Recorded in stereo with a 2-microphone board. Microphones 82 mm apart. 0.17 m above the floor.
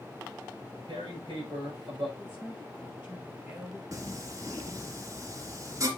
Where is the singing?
40° right (ahead or behind), 2 m.